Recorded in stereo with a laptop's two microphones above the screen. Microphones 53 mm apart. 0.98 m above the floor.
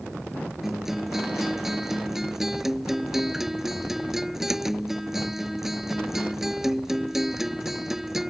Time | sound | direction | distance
0.6 | a guitar | 10° right (ahead or behind) | ?